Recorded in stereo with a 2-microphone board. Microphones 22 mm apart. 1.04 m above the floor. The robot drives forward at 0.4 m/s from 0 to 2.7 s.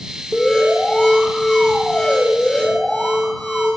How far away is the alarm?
About 4 m.